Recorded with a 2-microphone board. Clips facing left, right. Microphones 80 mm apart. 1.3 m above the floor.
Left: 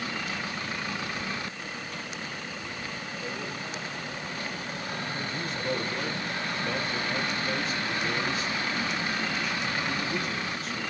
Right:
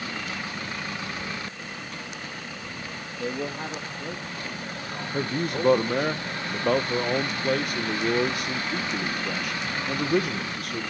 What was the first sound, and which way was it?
A man speaking, 65° right (ahead or behind).